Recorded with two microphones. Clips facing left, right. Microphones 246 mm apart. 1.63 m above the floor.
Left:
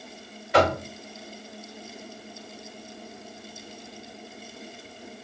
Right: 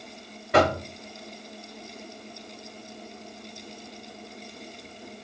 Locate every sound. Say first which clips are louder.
0.5 s knocking: even; 65° right (ahead or behind), 3 m